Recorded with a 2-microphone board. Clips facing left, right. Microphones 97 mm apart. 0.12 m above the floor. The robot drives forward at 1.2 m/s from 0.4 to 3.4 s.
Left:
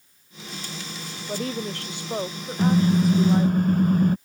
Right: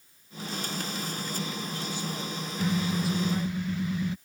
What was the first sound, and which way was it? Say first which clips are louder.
A woman speaking: left 6 dB; 65° left (ahead or behind).